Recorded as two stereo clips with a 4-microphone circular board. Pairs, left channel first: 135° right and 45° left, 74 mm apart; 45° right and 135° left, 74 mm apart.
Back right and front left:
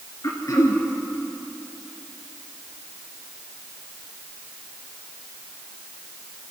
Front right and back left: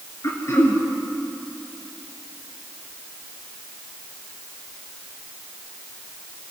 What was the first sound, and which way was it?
Throat clearing, 95° right.